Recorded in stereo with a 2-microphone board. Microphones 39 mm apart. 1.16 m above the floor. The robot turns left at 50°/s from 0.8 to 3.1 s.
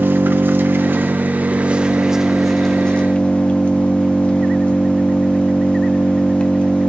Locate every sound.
0.0 s an engine running: 100° right, 0.7 m; by 6.9 s 145° left, 0.7 m